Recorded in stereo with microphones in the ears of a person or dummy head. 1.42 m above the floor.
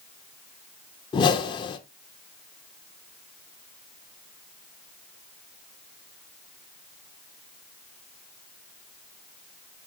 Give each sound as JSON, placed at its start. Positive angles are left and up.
{"t": 1.1, "sound": "a whoosh", "side_deg": 25, "distance_m": 0.6}